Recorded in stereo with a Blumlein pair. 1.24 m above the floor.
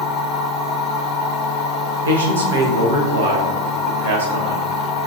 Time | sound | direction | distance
0.0 | a machine running | 15° left | 0.7 m
2.0 | a man speaking | 65° right | 0.9 m